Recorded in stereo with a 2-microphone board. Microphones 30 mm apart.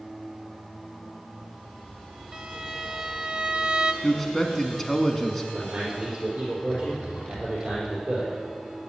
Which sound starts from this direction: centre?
A man speaking, at 4.0 s.